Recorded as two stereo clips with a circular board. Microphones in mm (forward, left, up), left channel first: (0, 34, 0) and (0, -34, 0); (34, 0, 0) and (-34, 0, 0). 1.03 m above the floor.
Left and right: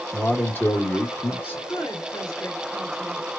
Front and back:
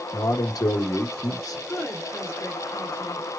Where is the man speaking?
35° left, 1.1 m.